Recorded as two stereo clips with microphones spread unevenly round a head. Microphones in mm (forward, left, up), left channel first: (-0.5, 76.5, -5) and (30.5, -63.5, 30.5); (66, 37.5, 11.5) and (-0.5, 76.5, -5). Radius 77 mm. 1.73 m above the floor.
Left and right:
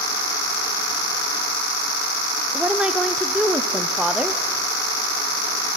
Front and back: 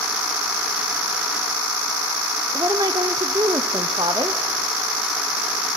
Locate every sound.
2.5 s a woman speaking: 150° right, 0.6 m